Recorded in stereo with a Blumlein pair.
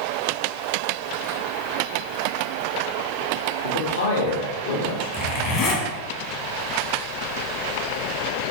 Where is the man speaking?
65° left, 0.7 m.